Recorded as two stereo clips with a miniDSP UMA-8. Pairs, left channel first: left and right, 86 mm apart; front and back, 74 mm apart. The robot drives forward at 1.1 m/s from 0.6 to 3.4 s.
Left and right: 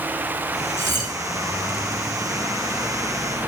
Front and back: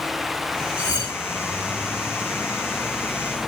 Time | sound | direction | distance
0.8 | cutlery clinking | 25° left | 6 m